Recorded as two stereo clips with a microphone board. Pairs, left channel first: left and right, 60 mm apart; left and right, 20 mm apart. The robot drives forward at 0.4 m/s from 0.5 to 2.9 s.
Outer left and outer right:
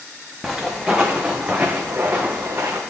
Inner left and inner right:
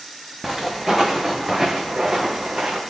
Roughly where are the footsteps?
Centre.